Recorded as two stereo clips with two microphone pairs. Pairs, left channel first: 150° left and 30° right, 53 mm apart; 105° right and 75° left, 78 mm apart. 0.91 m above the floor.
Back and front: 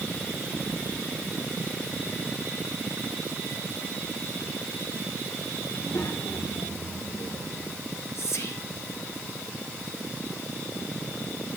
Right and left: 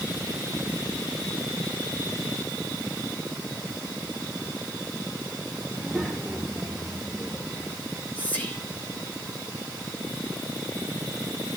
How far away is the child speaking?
About 3 m.